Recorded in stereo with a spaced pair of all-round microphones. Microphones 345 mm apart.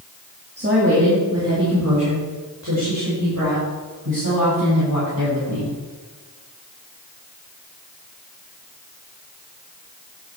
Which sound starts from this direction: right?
A woman speaking, at 0.6 s.